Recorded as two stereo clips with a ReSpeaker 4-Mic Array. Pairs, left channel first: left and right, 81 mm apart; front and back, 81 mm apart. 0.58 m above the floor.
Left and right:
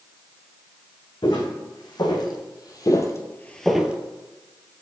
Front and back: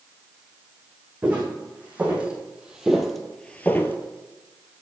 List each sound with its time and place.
1.2 s footsteps: 110° left, 1.9 m; by 4.0 s 30° right, 0.6 m